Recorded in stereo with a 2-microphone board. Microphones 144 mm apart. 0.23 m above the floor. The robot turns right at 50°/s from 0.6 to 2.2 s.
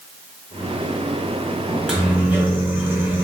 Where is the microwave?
Centre (ahead or behind), 0.8 m; by 3.2 s 15° right (ahead or behind), 0.8 m.